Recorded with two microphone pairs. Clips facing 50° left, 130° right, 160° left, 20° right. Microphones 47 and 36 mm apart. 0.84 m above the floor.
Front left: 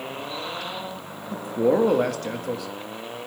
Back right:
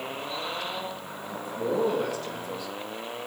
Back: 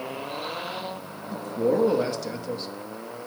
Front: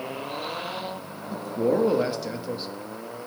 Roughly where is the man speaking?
Ahead left.